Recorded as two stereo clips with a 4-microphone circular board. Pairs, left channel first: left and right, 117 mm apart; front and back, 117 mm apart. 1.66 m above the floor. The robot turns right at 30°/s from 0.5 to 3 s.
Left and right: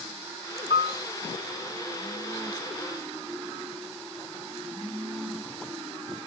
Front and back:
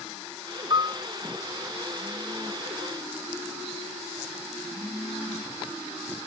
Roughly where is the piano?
Behind right.